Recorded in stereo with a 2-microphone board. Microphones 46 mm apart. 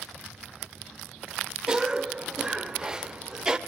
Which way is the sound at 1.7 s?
15° right (ahead or behind).